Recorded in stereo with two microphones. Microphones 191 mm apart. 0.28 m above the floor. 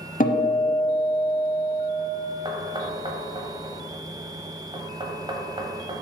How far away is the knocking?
About 1.1 m.